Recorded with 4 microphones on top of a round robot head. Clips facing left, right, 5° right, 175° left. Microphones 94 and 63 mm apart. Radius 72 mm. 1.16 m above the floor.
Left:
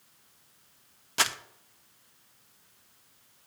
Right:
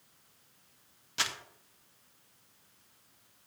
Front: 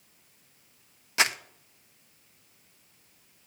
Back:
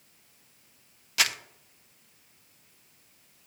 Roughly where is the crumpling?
Ahead left.